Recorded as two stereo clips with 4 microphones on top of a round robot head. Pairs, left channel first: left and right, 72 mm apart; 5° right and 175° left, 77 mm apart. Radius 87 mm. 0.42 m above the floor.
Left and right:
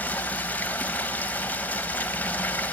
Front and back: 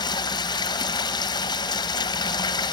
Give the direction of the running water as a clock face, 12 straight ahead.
11 o'clock.